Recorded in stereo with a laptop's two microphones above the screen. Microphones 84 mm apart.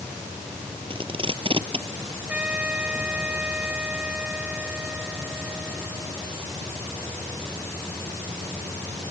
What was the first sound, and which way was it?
Tape being pulled, 90° right.